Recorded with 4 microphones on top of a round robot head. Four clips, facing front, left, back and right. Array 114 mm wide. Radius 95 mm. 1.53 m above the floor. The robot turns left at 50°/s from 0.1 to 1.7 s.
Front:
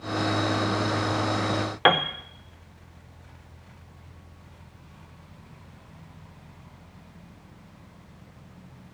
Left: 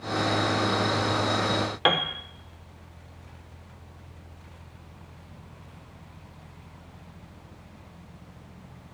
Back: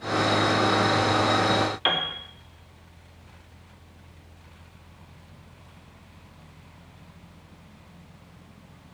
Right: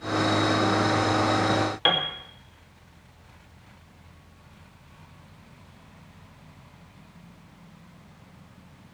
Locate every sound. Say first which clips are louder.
1.9 s a piano: left 2 dB, front 7 dB; 20° left, 1.0 m